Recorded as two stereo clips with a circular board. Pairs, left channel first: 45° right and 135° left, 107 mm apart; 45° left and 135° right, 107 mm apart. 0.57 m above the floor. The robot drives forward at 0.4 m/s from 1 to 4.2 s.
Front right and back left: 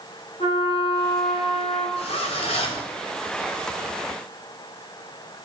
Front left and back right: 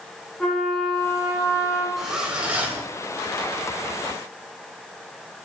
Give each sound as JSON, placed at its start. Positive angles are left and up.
{"t": 0.4, "sound": "a trumpet", "azimuth_deg": -35, "distance_m": 1.1}
{"t": 2.0, "sound": "a zipper", "azimuth_deg": -50, "distance_m": 1.1}